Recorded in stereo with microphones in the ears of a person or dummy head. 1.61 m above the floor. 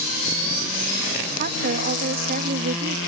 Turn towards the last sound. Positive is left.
turn(degrees=-50)  # may be behind; listen again after turning